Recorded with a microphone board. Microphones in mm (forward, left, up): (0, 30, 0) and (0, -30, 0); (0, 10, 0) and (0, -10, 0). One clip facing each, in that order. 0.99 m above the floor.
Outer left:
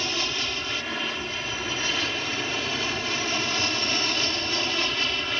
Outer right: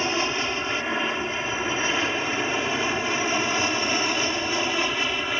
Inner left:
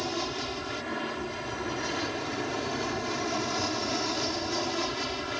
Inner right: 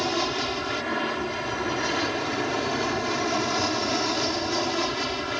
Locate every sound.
0.0 s an aircraft: 25° right (ahead or behind); by 5.4 s 15° right (ahead or behind)